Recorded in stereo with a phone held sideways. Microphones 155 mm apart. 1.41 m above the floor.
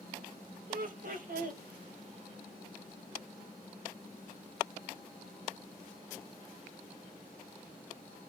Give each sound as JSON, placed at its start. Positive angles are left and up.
{"t": 0.7, "sound": "laughter", "side_deg": -65, "distance_m": 2.5}